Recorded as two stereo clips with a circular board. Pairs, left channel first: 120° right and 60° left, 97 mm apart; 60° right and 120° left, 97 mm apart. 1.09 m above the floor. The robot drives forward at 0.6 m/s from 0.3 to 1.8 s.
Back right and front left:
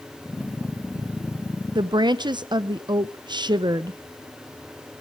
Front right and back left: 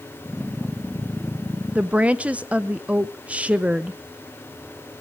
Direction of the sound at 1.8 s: 45° left.